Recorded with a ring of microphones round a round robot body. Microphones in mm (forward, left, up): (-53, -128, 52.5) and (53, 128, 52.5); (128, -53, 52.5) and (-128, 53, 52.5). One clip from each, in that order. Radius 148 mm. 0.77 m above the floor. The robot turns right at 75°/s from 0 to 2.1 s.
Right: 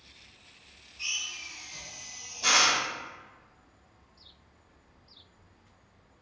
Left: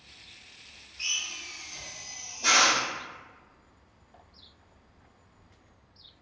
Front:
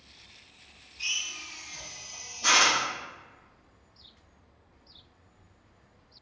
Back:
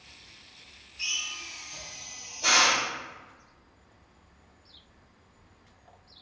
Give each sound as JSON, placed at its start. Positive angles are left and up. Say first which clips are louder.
{"t": 1.0, "sound": "a drill", "louder": "left 2 dB, even", "azimuth_deg": 150, "distance_m": 1.4}